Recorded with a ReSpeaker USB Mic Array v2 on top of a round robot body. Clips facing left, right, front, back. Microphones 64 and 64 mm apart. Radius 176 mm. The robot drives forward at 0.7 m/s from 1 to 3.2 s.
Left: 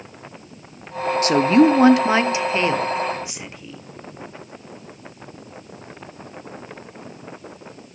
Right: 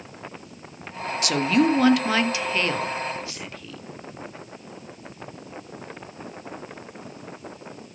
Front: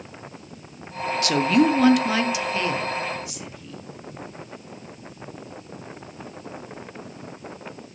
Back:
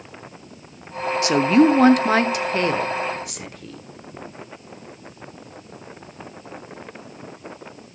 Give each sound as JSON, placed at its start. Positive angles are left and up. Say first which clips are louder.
{"t": 1.2, "sound": "a woman speaking", "louder": "left 6 dB, back 4 dB", "azimuth_deg": 125, "distance_m": 1.3}